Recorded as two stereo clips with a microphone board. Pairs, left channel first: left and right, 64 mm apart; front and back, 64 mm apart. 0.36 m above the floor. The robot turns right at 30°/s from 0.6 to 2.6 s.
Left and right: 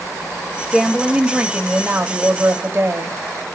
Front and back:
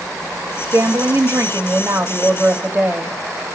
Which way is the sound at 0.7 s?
175° left.